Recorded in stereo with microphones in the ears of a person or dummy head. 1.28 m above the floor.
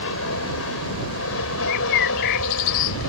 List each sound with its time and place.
0.0 s an aircraft: 75° left (ahead or behind); by 3.1 s 70° left (ahead or behind)
1.7 s a bird: 35° left (ahead or behind)